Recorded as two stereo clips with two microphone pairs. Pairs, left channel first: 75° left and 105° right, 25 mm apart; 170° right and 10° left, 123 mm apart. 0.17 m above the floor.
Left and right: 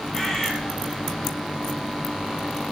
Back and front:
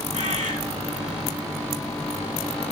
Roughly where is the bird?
Ahead.